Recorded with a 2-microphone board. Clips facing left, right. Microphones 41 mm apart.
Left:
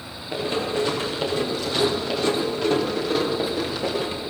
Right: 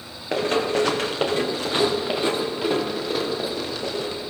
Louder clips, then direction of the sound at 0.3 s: Right 3 dB; 65° right (ahead or behind).